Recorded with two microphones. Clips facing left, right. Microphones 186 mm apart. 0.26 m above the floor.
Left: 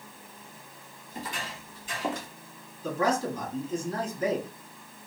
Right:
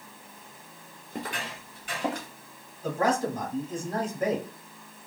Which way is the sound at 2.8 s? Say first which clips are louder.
Right 1 dB; 50° right (ahead or behind).